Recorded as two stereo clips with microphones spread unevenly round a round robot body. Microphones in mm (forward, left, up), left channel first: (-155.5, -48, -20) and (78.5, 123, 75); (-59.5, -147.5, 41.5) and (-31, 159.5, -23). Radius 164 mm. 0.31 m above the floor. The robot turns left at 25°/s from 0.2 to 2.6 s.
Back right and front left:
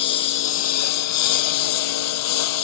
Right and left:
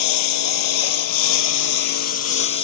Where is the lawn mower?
85° right; by 2.6 s 145° right.